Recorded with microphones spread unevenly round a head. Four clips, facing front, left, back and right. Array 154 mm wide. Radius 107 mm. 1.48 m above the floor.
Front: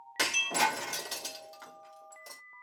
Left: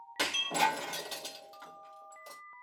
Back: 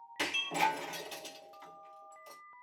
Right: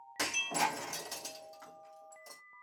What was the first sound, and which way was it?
Breaking glass, 20° left.